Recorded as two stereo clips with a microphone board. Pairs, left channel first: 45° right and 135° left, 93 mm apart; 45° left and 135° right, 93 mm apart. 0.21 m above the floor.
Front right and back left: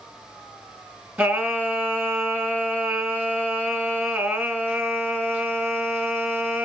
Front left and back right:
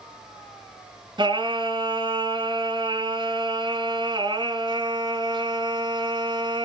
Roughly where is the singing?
Behind right.